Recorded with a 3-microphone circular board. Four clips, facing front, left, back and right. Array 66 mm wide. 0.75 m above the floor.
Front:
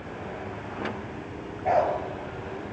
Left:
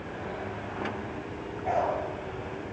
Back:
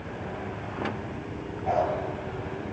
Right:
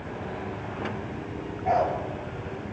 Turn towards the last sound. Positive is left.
turn(degrees=0)